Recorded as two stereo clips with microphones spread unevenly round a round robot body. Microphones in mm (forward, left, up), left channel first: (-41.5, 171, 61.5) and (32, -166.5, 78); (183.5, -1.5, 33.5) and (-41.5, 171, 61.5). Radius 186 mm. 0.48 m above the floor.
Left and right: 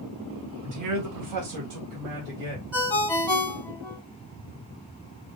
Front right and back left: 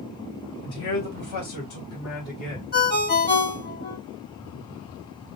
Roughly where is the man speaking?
Ahead right.